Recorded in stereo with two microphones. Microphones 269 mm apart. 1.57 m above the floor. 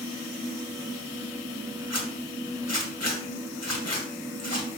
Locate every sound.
1.9 s a zipper: 60° left (ahead or behind), 2 m